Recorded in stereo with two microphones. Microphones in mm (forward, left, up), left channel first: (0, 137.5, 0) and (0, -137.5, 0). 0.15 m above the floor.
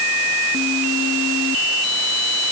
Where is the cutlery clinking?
I don't hear cutlery clinking.